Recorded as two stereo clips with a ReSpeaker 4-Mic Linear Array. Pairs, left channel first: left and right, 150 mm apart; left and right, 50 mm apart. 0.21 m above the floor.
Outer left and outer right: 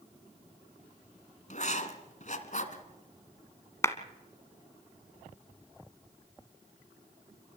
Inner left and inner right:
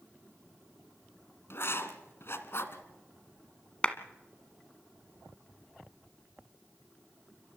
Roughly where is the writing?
Left.